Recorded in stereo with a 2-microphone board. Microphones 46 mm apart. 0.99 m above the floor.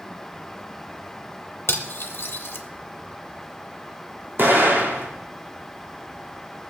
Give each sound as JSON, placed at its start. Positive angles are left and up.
{"t": 1.7, "sound": "cutlery clinking", "side_deg": 65, "distance_m": 1.0}
{"t": 4.4, "sound": "an explosion", "side_deg": -55, "distance_m": 1.6}